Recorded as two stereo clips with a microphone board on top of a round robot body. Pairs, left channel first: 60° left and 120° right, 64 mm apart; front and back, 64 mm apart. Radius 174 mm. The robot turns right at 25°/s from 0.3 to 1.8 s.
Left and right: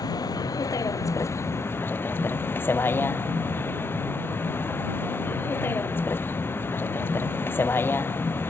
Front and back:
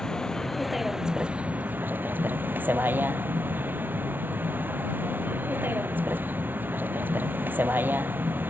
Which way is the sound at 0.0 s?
80° left.